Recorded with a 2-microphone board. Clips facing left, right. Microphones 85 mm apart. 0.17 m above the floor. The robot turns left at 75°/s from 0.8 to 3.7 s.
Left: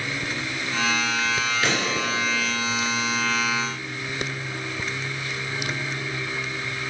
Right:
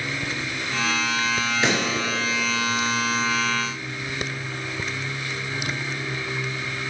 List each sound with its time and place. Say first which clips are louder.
1.6 s a pop: right 3 dB; 25° right (ahead or behind), 2.5 m; by 1.9 s 10° right (ahead or behind), 2.5 m